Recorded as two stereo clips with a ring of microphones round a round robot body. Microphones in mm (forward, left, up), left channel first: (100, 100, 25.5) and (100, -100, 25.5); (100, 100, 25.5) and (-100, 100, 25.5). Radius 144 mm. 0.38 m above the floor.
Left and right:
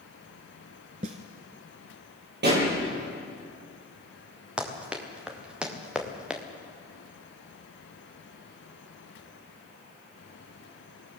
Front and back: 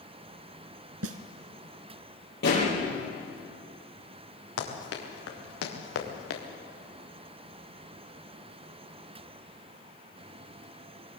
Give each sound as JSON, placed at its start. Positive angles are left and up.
{"t": 1.0, "sound": "a snare drum", "azimuth_deg": -160, "distance_m": 1.1}
{"t": 2.4, "sound": "a pop", "azimuth_deg": -55, "distance_m": 10.0}
{"t": 4.6, "sound": "running footsteps", "azimuth_deg": -5, "distance_m": 6.0}